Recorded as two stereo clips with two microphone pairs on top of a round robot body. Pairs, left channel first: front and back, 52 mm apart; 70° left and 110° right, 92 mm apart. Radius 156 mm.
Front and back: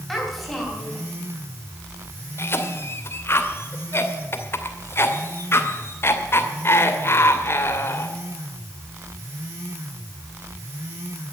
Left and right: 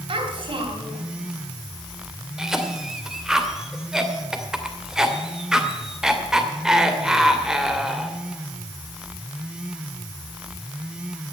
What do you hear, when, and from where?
0.1 s a child speaking: 90° right, 3.5 m
2.4 s a cough: 30° right, 2.5 m